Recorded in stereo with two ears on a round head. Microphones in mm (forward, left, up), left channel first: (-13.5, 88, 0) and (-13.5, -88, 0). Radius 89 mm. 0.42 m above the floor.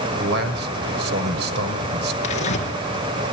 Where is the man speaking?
55° right (ahead or behind), 1.7 m.